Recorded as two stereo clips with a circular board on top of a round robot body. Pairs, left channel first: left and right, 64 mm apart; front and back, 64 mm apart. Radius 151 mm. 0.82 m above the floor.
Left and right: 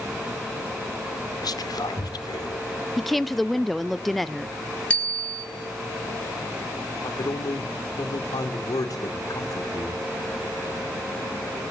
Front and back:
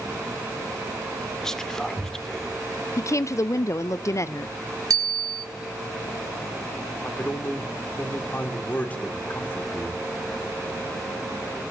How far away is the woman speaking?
About 0.7 m.